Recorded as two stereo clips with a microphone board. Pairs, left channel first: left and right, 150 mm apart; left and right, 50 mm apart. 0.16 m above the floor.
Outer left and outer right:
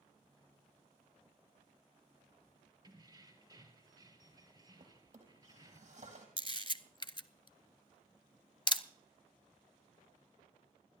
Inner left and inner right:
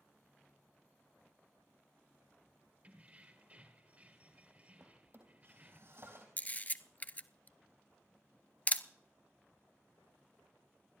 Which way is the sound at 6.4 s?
35° left (ahead or behind).